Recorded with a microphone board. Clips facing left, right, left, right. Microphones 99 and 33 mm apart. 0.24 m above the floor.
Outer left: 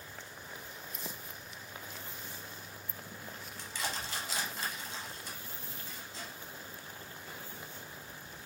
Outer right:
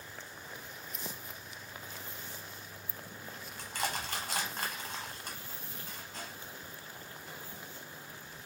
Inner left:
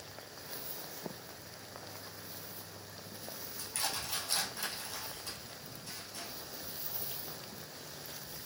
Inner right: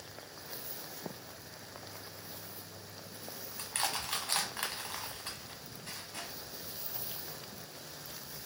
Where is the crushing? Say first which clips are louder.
Outer right 3 dB, inner right 3 dB; 55° right (ahead or behind), 0.9 m.